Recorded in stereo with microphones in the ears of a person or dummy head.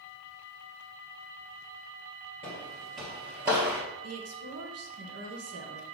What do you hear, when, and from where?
2.4 s footsteps: 5° left (ahead or behind), 1.3 m; by 3.8 s 30° right (ahead or behind), 1.4 m
4.0 s a woman speaking: 70° right (ahead or behind), 1.0 m